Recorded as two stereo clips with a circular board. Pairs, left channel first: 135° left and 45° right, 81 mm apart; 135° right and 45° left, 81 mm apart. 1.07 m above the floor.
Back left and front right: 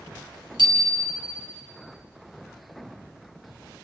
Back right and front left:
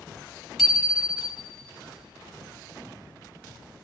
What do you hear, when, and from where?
0.6 s a bicycle bell: 45° right, 4 m